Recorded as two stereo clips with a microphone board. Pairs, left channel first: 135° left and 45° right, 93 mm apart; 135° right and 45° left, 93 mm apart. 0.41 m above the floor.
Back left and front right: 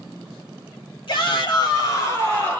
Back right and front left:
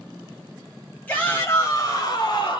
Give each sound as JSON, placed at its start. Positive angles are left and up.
{"t": 1.1, "sound": "a shout", "azimuth_deg": 150, "distance_m": 1.9}